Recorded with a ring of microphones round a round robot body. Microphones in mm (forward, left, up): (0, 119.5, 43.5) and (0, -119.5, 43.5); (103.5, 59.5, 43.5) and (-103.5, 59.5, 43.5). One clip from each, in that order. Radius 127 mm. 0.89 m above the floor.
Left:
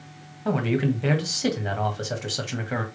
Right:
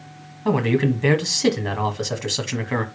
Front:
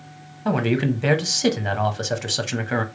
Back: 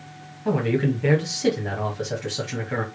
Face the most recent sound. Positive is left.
turn(degrees=-20)